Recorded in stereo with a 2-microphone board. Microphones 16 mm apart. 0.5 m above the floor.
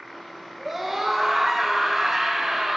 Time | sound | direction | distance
0.6 | a scream | 10° right (ahead or behind) | 7 m